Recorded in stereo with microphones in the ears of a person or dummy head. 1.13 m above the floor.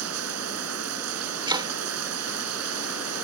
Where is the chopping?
30° right (ahead or behind).